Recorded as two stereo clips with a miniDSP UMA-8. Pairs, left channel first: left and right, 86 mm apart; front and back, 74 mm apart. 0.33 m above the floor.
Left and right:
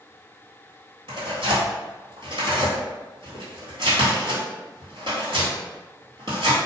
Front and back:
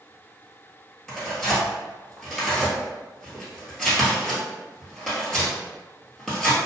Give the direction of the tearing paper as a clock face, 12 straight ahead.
3 o'clock.